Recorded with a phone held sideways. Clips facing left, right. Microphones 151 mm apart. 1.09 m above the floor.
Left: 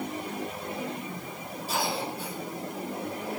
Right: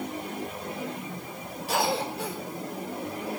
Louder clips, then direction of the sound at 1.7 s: Right 4 dB; 70° right (ahead or behind).